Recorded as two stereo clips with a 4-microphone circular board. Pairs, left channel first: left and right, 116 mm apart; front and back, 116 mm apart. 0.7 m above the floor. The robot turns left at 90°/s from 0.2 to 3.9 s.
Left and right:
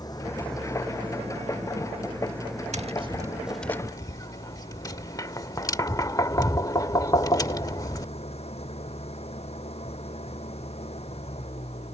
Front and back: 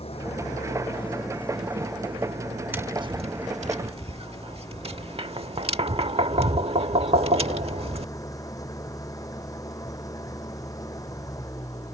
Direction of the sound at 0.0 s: 35° left.